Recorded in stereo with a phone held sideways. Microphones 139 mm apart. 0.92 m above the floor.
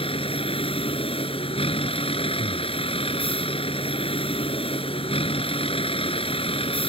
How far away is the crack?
No crack in this recording.